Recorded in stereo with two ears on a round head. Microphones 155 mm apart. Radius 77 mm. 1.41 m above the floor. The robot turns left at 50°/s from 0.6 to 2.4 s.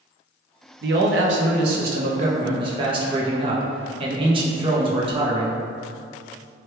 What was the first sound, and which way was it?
A man speaking, 70° right.